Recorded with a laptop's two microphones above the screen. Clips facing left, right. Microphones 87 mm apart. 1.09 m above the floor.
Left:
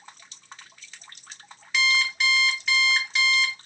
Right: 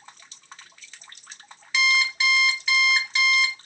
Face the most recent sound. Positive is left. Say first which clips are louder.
# right 1 dB
turn(degrees=0)  # may be behind; listen again after turning